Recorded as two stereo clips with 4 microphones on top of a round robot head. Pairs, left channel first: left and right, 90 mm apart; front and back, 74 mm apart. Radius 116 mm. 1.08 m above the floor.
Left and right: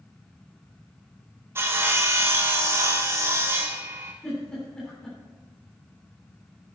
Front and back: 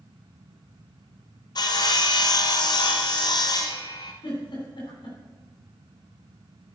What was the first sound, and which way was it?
Sawing, 25° right.